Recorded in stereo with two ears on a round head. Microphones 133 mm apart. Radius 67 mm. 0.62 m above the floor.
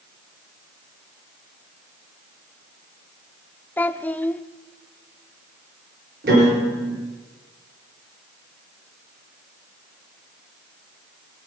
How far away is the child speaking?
About 0.6 m.